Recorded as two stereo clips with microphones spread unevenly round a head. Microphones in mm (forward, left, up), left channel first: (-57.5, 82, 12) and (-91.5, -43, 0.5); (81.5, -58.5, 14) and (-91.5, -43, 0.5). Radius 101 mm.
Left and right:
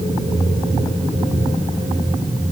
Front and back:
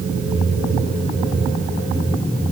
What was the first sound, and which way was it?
Only background noise.